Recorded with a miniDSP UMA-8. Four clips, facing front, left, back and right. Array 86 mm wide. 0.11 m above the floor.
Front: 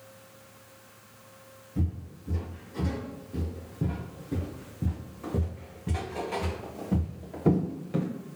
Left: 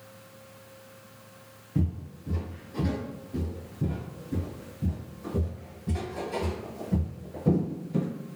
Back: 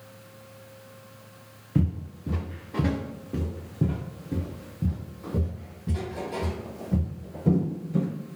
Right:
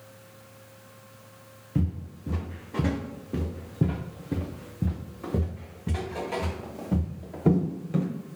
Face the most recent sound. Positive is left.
turn(degrees=-50)